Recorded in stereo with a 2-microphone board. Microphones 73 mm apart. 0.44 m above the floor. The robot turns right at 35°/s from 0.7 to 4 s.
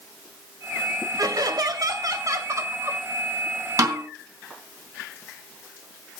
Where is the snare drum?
50° right (ahead or behind), 3 m; by 4.0 s 55° right (ahead or behind), 3 m.